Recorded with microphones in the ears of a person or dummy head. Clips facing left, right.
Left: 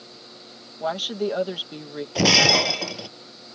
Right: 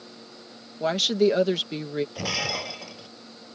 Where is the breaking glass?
85° left.